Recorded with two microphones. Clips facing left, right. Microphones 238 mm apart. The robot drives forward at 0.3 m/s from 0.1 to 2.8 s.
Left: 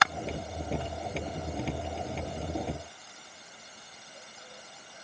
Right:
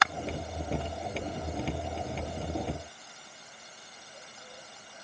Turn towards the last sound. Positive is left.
No sound to turn to.